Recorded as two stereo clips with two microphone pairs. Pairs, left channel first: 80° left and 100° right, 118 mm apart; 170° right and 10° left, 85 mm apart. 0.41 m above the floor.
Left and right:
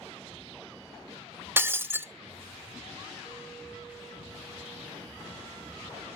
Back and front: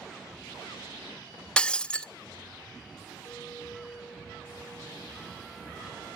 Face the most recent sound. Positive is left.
turn(degrees=135)